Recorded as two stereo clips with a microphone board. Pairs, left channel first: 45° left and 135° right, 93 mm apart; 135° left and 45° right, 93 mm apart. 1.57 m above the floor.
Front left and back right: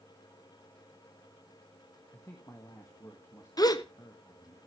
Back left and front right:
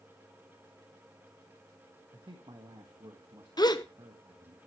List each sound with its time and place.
2.1 s a man speaking: 10° right, 1.8 m
3.6 s a gasp: 90° left, 0.8 m